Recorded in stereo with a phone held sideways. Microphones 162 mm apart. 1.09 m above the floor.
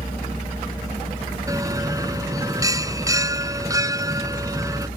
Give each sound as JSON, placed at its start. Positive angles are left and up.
{"t": 1.5, "sound": "a bell", "side_deg": -20}